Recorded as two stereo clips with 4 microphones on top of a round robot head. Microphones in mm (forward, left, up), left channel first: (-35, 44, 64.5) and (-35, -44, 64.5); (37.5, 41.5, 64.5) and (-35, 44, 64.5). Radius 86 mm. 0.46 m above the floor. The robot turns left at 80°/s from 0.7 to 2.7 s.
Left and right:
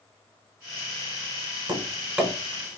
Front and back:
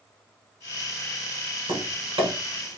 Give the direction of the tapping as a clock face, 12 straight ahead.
4 o'clock.